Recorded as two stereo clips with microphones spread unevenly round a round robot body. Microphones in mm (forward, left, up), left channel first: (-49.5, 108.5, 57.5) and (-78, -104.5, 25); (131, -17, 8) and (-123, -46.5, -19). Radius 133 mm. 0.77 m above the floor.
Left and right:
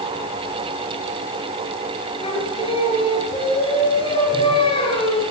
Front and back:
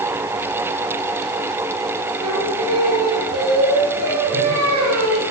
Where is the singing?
150° left, 10 m.